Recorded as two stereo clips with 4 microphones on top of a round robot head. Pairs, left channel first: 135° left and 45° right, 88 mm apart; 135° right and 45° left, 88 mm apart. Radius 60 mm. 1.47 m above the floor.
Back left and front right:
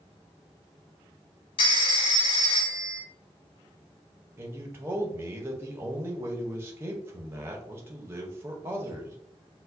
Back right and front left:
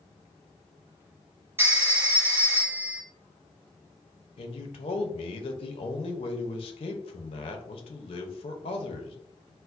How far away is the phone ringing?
About 0.7 m.